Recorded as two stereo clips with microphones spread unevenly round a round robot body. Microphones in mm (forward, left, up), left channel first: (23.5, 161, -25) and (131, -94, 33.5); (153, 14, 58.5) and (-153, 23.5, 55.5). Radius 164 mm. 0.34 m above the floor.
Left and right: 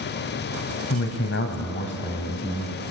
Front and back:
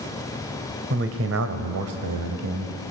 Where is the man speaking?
135° left, 1.6 m; by 2.7 s 170° right, 2.0 m.